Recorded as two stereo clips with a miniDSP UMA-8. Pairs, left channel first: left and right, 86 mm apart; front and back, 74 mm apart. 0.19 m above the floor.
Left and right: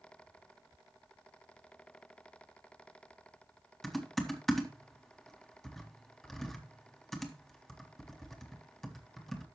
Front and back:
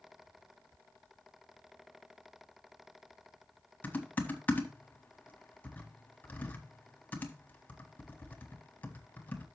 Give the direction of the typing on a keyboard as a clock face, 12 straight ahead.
12 o'clock.